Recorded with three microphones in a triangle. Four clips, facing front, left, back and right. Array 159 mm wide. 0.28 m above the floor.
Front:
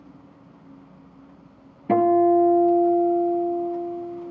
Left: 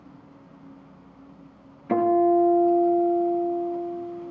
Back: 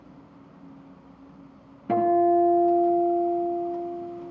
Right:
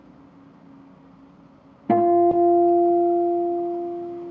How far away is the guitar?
About 1.6 m.